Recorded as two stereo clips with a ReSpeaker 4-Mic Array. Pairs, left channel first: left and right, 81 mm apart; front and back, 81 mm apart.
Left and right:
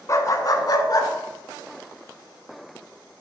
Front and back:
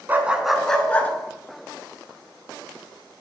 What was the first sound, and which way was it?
A dog barking, 125° left.